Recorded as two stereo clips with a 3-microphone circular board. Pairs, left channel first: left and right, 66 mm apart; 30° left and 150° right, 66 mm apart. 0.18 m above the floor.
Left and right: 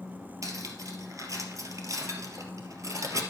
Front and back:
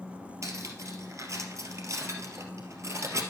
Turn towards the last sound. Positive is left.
turn(degrees=-115)